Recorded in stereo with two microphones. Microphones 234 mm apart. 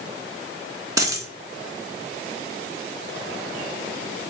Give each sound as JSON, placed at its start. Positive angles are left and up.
{"t": 1.0, "sound": "a dropped coin", "side_deg": -15, "distance_m": 0.8}